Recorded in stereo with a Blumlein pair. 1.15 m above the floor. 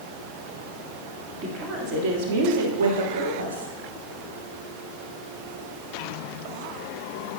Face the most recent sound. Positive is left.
turn(degrees=-75)